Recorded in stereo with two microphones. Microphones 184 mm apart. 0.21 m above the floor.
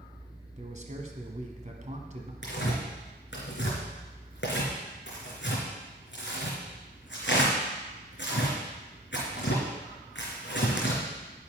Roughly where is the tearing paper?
Left.